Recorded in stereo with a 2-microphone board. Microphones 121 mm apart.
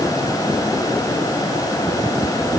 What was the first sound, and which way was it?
Only background noise.